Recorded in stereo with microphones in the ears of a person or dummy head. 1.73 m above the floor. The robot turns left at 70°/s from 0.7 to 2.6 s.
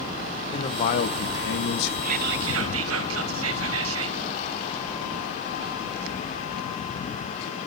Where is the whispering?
40° right, 2 m; by 4.2 s 80° right, 2 m.